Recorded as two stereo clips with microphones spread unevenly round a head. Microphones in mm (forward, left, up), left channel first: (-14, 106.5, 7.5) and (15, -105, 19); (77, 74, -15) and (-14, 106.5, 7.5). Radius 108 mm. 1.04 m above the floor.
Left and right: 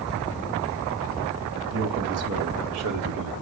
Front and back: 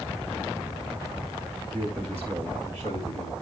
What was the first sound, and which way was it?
A man speaking, 105° right.